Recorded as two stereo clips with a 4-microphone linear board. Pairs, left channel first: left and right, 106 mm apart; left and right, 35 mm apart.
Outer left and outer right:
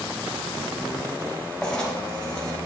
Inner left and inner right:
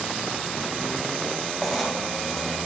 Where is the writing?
5° left (ahead or behind), 1.2 m.